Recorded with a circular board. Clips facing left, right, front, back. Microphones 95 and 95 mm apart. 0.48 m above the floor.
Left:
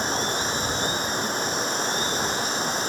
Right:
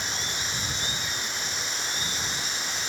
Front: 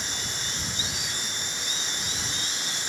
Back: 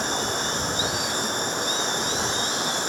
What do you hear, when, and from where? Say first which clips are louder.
0.0 s running water: left 9 dB, back 11 dB; 140° left